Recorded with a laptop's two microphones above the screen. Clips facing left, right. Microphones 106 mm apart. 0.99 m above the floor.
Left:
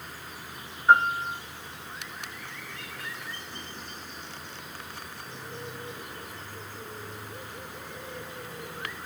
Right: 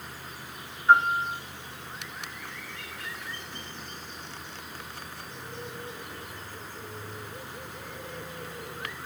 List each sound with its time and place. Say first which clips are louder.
0.9 s a piano: even; 30° left (ahead or behind), 2 m